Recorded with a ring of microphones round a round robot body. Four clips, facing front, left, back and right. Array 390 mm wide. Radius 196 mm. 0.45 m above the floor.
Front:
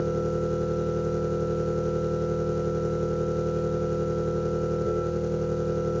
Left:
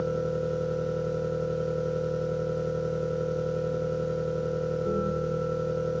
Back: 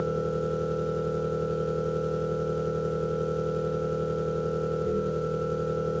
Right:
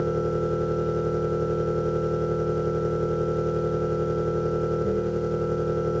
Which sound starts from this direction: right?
An engine running, at 0.0 s.